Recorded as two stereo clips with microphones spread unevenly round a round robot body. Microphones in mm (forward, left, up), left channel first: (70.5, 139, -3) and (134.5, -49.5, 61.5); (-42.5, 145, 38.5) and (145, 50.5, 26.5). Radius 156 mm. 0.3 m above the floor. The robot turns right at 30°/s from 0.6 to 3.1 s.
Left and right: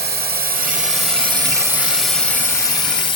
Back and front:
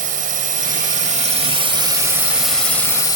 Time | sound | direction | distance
0.0 | a drone | 40° right | ?